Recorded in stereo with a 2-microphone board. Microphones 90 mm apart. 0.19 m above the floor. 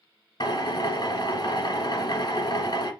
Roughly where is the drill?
Left.